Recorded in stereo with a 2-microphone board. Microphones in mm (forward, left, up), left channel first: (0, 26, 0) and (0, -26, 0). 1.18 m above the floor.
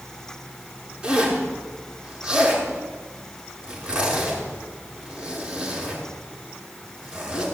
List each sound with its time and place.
1.0 s a zipper: 20° right (ahead or behind), 5.5 m